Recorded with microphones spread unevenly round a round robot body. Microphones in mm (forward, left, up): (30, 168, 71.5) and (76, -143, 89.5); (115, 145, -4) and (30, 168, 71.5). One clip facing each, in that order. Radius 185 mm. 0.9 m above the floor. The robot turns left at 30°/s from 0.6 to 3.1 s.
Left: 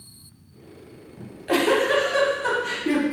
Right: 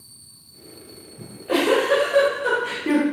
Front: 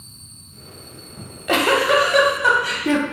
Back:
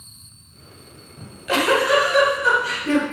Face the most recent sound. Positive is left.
turn(degrees=-5)